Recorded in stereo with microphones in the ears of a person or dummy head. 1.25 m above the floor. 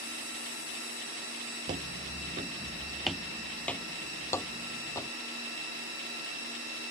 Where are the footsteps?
20° right (ahead or behind); by 5.1 s 15° left (ahead or behind).